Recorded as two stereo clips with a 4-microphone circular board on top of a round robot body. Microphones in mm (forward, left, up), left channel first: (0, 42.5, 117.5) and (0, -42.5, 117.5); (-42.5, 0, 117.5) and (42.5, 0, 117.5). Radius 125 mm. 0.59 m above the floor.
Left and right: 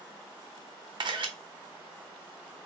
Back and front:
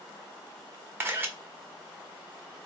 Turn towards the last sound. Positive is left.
turn(degrees=-65)